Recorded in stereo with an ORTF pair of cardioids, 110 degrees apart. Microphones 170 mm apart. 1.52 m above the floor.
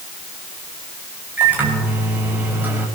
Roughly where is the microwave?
Ahead.